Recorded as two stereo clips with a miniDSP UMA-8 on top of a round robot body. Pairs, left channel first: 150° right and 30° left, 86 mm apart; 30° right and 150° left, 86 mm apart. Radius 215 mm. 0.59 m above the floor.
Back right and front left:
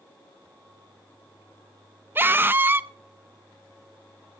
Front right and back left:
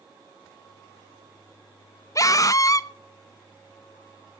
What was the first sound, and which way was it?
A scream, 20° right.